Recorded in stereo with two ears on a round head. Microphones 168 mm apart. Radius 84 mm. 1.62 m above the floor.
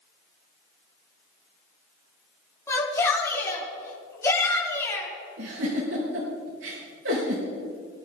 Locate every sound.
2.7 s a shout: 15° left (ahead or behind), 4.5 m
5.4 s a giggle: 75° right (ahead or behind), 6 m